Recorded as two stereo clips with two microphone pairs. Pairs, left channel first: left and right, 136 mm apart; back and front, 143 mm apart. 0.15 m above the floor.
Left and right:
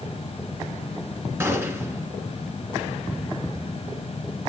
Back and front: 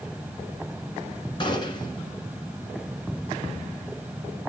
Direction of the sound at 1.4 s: 150° right.